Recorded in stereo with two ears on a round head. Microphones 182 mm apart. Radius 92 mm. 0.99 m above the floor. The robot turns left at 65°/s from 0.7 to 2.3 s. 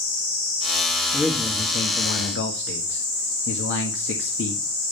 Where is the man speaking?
175° right, 1.7 m; by 4.6 s 110° left, 1.7 m.